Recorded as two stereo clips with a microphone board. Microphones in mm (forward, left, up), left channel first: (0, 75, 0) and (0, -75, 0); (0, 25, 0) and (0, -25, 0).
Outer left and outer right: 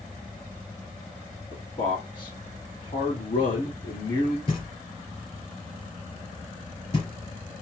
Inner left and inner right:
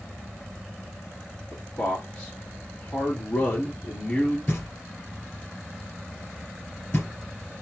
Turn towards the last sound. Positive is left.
turn(degrees=40)  # may be behind; listen again after turning